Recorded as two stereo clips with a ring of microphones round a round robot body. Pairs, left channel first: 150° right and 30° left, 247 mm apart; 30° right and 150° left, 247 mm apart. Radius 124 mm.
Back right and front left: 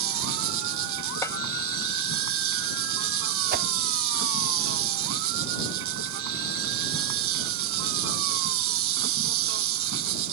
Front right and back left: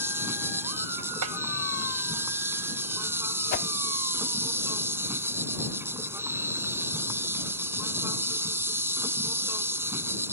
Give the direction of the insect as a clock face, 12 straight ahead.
10 o'clock.